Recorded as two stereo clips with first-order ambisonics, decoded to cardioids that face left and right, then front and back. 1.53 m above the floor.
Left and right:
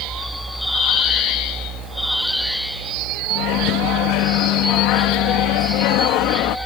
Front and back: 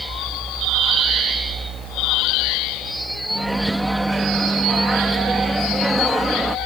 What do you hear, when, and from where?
3.3 s a microwave: 95° left